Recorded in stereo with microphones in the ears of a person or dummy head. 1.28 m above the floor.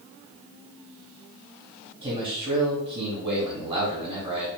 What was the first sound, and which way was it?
A man speaking, 25° right (ahead or behind).